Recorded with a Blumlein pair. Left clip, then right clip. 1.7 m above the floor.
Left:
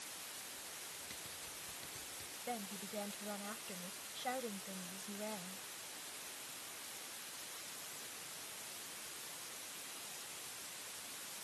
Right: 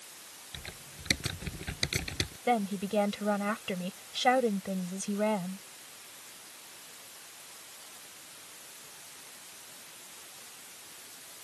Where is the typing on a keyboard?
50° right.